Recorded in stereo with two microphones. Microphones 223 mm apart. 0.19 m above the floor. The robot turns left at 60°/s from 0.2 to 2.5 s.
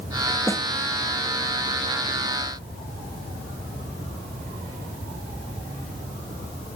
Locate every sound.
0.5 s a snare drum: 10° left (ahead or behind); by 0.7 s 25° left (ahead or behind)